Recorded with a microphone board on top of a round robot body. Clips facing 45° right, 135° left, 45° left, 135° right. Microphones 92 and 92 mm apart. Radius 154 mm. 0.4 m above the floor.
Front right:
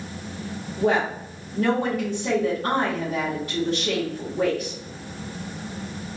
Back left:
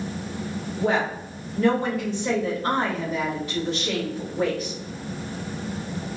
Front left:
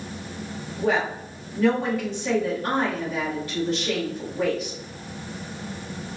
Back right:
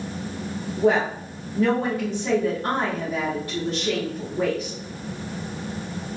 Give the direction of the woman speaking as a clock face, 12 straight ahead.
3 o'clock.